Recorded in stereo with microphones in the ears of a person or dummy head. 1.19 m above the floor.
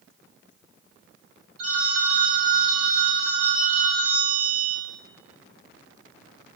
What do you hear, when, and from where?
1.6 s a phone ringing: 30° right (ahead or behind), 7 m